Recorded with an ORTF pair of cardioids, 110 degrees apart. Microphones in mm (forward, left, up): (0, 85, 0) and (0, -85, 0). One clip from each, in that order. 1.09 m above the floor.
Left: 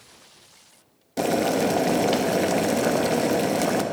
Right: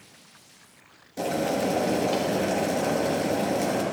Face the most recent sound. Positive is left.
turn(degrees=40)